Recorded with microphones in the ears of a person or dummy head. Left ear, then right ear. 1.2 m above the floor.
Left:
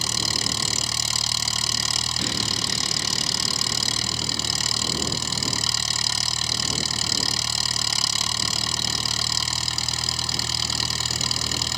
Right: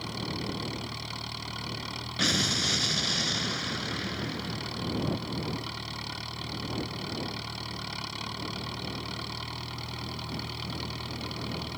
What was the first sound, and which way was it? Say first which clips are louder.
An engine running: left 12 dB; 80° left.